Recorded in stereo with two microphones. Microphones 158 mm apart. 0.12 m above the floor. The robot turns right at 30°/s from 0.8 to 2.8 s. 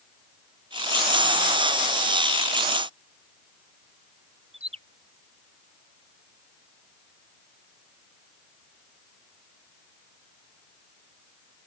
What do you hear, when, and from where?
4.5 s a bird: 40° right (ahead or behind)